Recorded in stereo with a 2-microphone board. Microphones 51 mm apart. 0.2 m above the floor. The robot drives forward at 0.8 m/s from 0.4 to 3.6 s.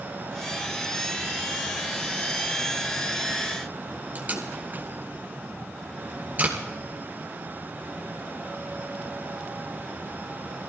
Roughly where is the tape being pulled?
Right.